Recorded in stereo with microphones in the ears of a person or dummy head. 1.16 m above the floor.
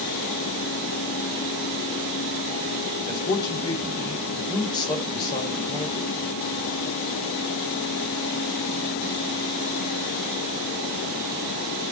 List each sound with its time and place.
3.1 s a man speaking: 25° left (ahead or behind), 6 m